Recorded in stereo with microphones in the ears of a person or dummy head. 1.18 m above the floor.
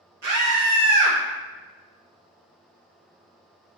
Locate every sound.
0.2 s a scream: 65° right (ahead or behind), 1.1 m